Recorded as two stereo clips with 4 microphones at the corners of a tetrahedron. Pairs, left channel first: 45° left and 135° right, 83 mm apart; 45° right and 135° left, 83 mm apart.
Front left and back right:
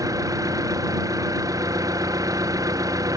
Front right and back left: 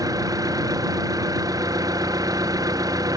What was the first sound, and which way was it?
An engine running, straight behind.